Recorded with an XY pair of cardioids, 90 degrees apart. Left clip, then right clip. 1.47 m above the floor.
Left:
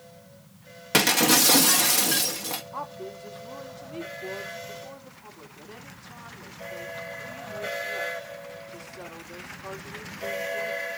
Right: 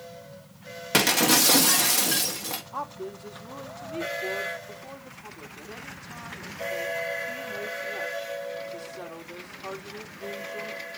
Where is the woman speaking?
25° right, 3.5 m.